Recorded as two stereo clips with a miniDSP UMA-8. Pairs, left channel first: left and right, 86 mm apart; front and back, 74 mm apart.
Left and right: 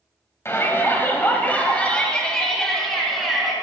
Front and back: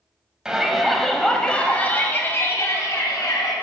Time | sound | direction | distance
0.5 | a shout | 110° left | 1.5 m